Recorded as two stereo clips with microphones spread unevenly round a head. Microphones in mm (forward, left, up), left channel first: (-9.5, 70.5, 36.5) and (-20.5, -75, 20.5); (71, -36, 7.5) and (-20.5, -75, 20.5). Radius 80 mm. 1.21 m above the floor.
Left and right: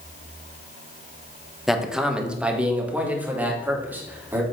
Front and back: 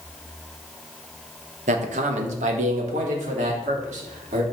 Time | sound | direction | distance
1.7 | a man speaking | straight behind | 1.1 m